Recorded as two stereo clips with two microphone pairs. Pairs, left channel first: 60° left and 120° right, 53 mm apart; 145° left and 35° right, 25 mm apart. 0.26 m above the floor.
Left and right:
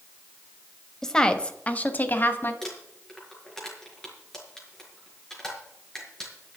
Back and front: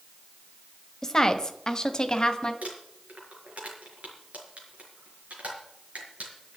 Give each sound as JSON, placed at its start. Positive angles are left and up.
{"t": 1.0, "sound": "a woman speaking", "azimuth_deg": 125, "distance_m": 1.3}
{"t": 2.6, "sound": "crumpling", "azimuth_deg": -20, "distance_m": 5.0}